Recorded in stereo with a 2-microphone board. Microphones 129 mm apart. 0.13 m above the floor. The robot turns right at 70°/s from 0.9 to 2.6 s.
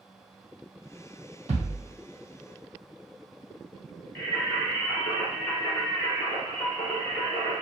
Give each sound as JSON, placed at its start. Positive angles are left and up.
{"t": 1.5, "sound": "a thud", "side_deg": -60, "distance_m": 1.4}
{"t": 4.2, "sound": "singing", "side_deg": 15, "distance_m": 1.7}